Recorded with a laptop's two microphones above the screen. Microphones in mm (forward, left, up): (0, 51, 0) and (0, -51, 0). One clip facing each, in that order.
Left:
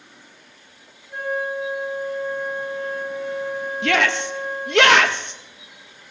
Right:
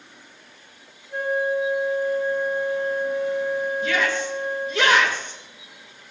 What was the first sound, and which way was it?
A flute, 15° left (ahead or behind).